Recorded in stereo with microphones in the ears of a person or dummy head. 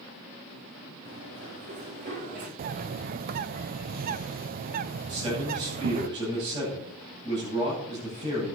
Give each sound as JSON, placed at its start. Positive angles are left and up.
{"t": 1.1, "sound": "running footsteps", "side_deg": -60, "distance_m": 5.0}
{"t": 2.6, "sound": "a bird", "side_deg": -45, "distance_m": 0.5}
{"t": 5.1, "sound": "a man speaking", "side_deg": -25, "distance_m": 9.0}